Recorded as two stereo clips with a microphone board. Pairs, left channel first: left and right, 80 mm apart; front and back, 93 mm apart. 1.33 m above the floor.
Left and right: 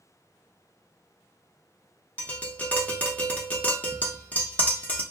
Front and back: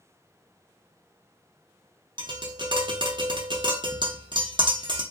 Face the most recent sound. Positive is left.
turn(degrees=160)